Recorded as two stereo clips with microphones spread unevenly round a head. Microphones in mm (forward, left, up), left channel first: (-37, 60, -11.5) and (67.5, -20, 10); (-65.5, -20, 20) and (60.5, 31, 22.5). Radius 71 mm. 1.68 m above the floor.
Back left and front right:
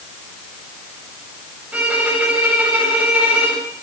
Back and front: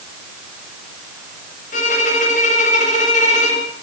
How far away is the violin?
About 8 m.